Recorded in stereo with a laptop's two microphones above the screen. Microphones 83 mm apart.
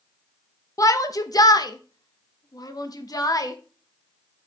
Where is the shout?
40° left (ahead or behind), 1.2 m; by 3.5 s 45° left (ahead or behind), 1.6 m.